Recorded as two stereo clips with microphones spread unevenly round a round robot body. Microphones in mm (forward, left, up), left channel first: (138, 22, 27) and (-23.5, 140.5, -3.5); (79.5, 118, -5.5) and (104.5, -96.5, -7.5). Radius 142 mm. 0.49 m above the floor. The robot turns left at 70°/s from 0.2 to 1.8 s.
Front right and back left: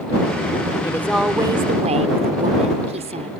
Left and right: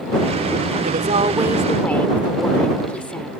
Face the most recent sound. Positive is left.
turn(degrees=180)